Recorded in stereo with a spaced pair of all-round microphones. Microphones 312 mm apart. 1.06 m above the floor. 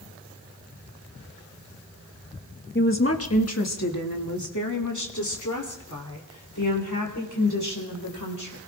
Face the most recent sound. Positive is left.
turn(degrees=85)